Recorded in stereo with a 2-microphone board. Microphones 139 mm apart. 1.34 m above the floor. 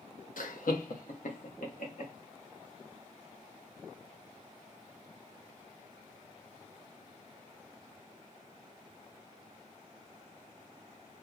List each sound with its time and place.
0.4 s laughter: 80° left, 0.6 m; by 2.1 s 70° left (ahead or behind), 1.6 m